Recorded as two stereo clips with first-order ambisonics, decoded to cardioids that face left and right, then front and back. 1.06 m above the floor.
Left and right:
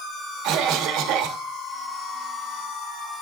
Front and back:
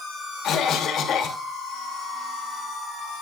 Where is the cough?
55° right, 1.4 m.